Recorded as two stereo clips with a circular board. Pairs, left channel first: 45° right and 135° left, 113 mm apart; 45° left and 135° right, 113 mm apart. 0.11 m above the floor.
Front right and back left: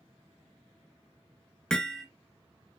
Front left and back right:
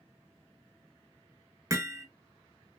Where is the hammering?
120° right, 0.7 m.